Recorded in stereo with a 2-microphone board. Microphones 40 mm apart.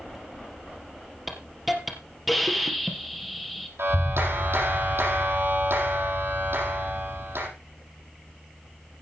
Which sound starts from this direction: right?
A clap, at 3.8 s.